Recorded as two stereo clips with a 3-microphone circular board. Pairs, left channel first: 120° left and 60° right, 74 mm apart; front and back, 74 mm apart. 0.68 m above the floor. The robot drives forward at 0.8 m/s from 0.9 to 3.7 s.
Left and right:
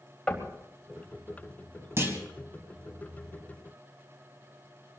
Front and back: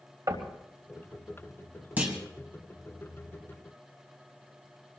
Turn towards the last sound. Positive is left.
turn(degrees=-130)